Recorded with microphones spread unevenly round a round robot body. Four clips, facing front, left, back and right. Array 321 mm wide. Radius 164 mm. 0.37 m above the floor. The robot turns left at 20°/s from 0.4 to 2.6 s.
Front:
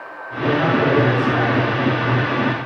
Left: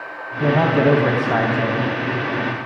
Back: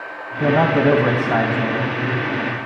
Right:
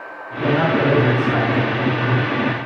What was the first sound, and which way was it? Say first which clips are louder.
A man speaking: left 1 dB, back 2 dB; 150° left.